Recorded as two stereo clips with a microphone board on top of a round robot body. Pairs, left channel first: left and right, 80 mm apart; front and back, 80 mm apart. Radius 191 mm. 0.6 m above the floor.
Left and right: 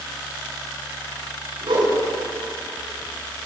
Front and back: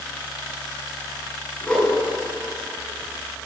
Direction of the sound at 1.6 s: 80° right.